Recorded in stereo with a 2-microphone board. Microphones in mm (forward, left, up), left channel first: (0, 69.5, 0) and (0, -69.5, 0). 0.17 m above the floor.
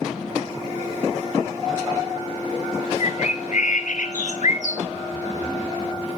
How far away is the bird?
About 0.7 m.